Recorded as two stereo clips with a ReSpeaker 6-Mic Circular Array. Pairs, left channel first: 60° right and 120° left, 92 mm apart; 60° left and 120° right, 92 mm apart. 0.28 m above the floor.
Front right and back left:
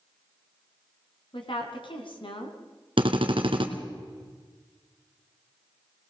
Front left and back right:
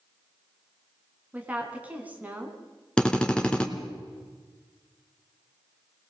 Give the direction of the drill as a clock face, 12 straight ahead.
7 o'clock.